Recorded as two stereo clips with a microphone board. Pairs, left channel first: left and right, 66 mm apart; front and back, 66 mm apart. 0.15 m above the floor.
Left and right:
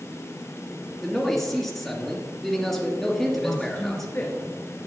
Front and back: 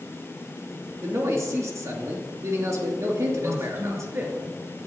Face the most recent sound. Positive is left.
turn(degrees=140)